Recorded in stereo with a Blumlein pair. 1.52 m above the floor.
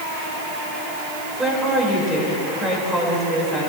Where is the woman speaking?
10° right, 5.5 m.